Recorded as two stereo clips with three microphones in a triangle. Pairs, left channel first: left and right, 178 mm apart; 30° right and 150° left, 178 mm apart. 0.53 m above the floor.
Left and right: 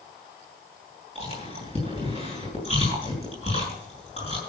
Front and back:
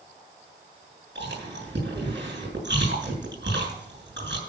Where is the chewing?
145° left, 7.5 m.